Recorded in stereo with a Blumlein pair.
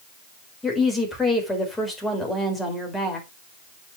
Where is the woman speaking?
10° left, 4 m.